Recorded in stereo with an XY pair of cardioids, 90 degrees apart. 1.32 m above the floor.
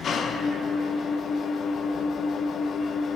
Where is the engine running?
65° left, 1.2 m.